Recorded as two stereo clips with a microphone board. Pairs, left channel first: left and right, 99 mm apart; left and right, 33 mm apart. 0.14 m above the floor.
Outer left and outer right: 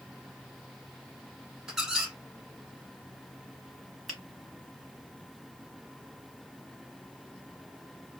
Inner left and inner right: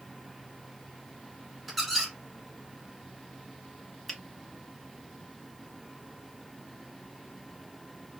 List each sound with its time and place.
1.7 s a squeak: 5° right (ahead or behind), 1.2 m
4.1 s a finger snap: 5° left (ahead or behind), 1.6 m